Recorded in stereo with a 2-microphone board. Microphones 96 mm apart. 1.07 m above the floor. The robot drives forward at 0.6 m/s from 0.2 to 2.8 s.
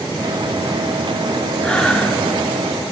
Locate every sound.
1.6 s breathing: 10° left (ahead or behind), 0.7 m